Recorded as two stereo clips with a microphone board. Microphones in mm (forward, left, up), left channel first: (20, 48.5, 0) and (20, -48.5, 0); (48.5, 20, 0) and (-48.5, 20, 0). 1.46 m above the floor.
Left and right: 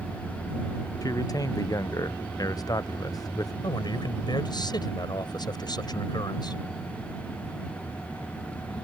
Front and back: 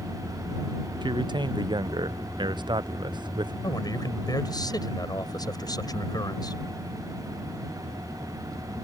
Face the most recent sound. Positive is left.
turn(degrees=50)